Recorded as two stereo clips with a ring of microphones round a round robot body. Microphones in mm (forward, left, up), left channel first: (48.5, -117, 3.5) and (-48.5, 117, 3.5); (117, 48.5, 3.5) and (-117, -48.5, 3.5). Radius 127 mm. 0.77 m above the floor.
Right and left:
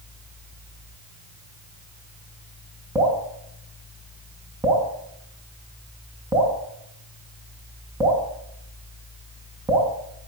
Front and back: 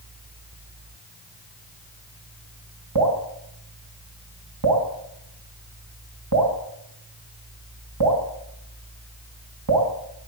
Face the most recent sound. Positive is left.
turn(degrees=-170)